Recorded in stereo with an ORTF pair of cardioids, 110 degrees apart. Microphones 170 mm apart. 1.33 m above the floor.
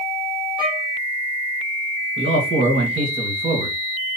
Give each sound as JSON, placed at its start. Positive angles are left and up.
{"t": 0.6, "sound": "a violin", "azimuth_deg": -5, "distance_m": 1.9}
{"t": 2.2, "sound": "a man speaking", "azimuth_deg": -35, "distance_m": 1.7}